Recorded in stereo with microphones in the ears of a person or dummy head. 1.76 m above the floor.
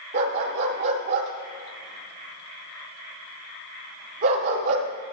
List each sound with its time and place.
0.1 s a dog barking: 45° right (ahead or behind), 2 m